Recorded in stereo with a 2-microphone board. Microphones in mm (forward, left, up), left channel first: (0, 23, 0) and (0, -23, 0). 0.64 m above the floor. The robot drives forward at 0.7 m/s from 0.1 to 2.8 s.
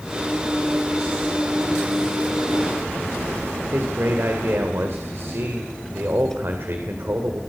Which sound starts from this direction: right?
A man speaking, at 3.7 s.